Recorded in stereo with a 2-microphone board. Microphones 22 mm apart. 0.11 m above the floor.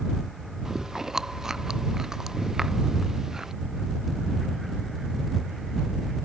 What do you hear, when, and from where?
0.7 s chewing: 20° right (ahead or behind)